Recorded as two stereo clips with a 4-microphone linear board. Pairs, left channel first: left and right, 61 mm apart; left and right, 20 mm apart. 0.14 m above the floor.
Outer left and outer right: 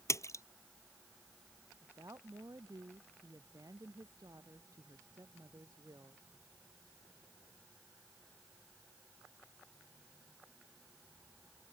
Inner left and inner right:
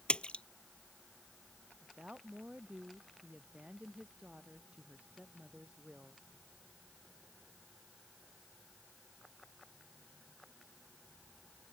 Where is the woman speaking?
70° right (ahead or behind).